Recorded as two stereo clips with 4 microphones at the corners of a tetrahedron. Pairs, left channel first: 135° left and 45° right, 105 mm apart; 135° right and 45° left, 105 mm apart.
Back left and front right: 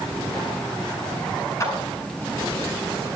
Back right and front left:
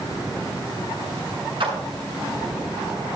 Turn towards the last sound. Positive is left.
turn(degrees=75)